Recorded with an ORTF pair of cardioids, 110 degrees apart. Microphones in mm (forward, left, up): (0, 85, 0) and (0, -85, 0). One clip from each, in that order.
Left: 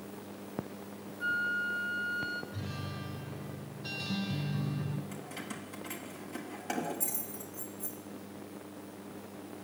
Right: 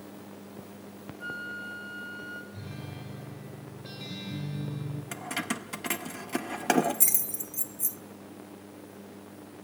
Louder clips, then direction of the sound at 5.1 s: Right 9 dB; 70° right.